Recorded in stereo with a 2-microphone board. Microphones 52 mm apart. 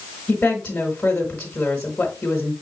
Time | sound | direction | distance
0.3 | a woman speaking | 25° left (ahead or behind) | 1.2 m